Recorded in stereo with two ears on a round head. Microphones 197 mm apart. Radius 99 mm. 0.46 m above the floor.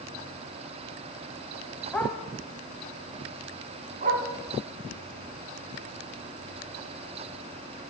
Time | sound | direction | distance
1.9 | a dog barking | 5° left (ahead or behind) | 1.1 m